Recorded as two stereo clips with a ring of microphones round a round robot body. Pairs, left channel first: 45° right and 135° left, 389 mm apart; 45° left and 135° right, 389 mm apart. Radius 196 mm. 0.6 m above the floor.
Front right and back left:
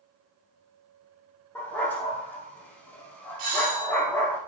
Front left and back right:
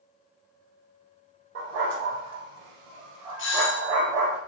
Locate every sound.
1.6 s a dog barking: 130° right, 5 m
3.4 s a doorbell: 105° left, 4 m